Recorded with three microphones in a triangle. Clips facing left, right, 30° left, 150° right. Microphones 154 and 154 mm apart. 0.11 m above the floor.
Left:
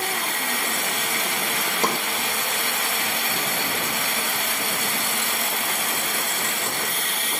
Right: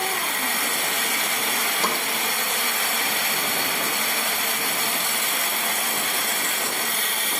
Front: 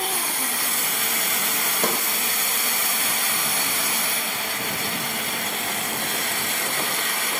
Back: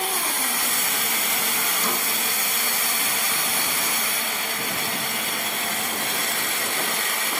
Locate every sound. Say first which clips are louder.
1.8 s a snare drum: left 3 dB, front 5 dB; 50° left, 2.5 m